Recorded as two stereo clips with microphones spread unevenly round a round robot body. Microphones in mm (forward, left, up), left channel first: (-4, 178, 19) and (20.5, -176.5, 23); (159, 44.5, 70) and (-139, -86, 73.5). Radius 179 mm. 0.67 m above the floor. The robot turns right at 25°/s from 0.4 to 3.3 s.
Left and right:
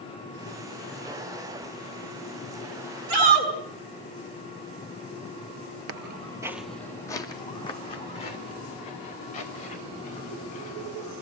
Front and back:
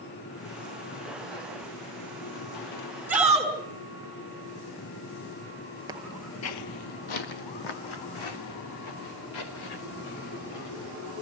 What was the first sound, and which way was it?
A shout, 70° right.